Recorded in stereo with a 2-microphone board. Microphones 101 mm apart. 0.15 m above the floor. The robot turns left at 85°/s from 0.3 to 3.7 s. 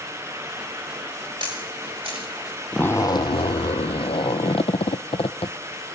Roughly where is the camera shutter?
Right.